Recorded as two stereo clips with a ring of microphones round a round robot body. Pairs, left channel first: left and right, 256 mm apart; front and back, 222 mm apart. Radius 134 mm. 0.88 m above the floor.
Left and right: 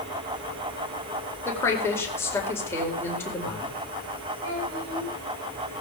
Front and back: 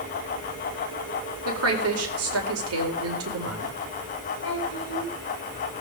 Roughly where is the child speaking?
Ahead right.